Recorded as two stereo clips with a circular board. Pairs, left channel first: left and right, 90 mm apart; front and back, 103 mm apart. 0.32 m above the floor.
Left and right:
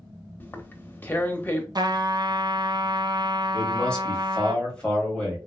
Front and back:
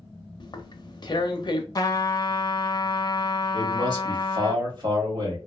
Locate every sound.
0.4 s tearing paper: 30° left, 0.5 m
1.8 s a trumpet: 50° right, 0.6 m
3.5 s a man speaking: 165° left, 1.5 m